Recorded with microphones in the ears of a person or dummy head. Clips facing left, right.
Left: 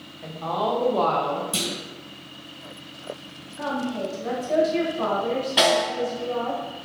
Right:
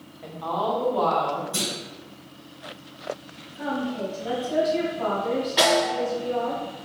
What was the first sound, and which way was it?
A woman speaking, 5° left (ahead or behind).